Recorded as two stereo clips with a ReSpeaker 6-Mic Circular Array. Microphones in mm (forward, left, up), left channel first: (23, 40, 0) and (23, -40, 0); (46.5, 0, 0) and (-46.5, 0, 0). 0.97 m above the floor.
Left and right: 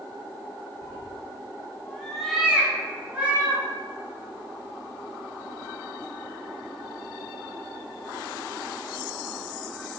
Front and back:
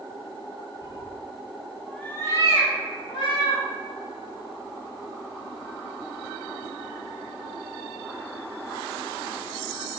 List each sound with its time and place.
0.8 s a cat meowing: 140° left, 0.8 m; by 3.6 s 25° right, 1.2 m